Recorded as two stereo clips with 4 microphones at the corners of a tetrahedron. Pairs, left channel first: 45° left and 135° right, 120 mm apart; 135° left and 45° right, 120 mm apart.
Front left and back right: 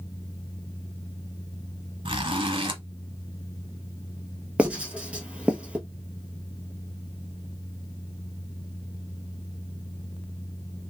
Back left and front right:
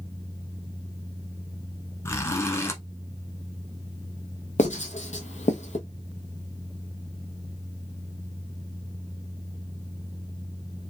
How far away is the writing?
About 1.0 m.